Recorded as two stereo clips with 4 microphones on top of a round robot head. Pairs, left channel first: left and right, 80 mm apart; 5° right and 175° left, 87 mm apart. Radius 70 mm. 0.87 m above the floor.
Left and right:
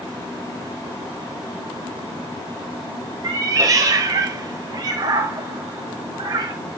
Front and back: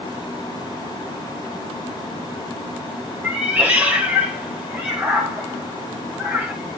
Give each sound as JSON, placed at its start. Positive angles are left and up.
{"t": 3.2, "sound": "a cat meowing", "azimuth_deg": -110, "distance_m": 0.8}